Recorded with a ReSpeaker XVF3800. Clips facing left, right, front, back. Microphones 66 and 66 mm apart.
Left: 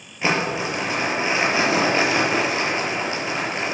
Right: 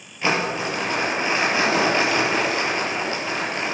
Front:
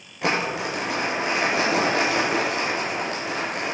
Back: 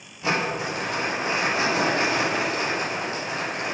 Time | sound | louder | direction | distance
0.2 | crumpling | even, front 1 dB | 15° left | 5.5 m